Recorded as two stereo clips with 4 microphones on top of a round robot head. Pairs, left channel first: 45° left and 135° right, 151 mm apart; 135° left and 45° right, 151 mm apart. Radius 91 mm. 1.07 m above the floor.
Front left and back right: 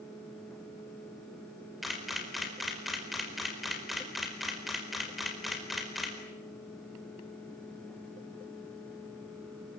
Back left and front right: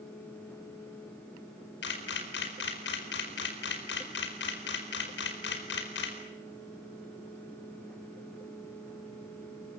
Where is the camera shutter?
135° left, 4.5 m.